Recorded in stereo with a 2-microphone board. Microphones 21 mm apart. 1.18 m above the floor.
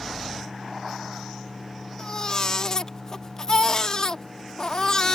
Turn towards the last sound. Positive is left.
turn(degrees=35)  # may be behind; listen again after turning